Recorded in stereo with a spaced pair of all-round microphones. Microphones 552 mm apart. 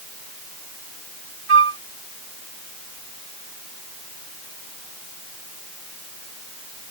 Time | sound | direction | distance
1.5 | a flute | 65° right (ahead or behind) | ?